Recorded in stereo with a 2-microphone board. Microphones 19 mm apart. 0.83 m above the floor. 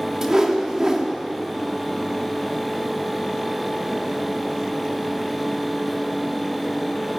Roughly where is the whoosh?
Right.